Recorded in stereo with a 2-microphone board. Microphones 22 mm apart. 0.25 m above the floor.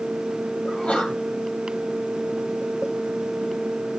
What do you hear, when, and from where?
0.6 s a sneeze: 80° left, 6.5 m